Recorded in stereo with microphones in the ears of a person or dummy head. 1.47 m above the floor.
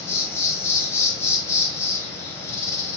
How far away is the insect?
About 0.9 m.